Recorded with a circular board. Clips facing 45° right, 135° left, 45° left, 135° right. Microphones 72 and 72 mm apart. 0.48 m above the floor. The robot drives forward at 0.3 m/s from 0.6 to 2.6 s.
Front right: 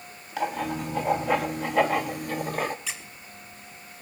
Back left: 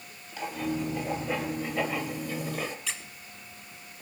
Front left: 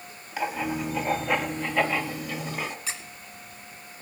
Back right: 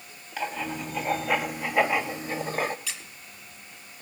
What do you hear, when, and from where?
0.4 s writing: 35° right, 0.8 m; by 2.8 s 85° right, 0.5 m
2.9 s a squeak: 40° left, 0.8 m